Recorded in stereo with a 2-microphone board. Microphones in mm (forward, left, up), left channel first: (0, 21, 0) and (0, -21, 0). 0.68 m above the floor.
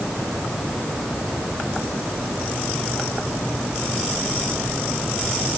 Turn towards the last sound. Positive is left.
No sound to turn to.